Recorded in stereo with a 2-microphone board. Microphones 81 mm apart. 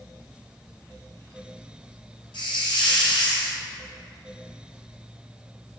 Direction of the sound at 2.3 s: 85° left.